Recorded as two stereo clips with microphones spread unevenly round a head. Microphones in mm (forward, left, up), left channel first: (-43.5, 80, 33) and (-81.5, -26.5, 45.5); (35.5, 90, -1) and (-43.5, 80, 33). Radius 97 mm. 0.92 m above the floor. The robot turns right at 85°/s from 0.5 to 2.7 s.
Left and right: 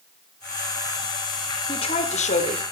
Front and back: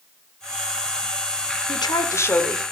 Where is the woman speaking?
15° left, 3.5 m; by 2.6 s 95° left, 3.5 m.